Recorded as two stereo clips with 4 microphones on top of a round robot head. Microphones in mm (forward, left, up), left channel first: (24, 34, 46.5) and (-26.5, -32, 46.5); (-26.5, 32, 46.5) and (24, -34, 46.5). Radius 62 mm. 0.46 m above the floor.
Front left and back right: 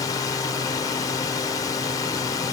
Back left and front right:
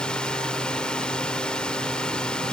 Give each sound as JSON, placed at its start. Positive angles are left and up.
{"t": 0.0, "sound": "a drone", "azimuth_deg": 50}